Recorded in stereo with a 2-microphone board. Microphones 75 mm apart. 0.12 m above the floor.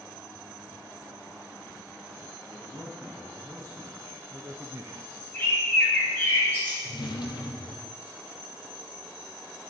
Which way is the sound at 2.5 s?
35° right (ahead or behind).